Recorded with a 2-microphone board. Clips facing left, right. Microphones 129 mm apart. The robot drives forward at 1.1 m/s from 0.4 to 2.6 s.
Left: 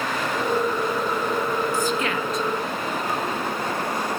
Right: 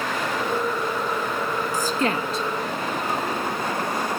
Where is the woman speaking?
40° right (ahead or behind), 1.4 m; by 2.5 s 30° right (ahead or behind), 1.7 m.